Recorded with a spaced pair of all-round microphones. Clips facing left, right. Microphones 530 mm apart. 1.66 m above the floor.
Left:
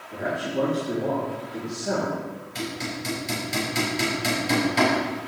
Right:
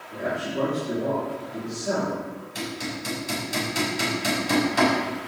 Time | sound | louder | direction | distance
0.1 | a man speaking | left 1 dB | 5° left (ahead or behind) | 4 m
2.5 | hammering | left 1 dB | 20° left (ahead or behind) | 4.5 m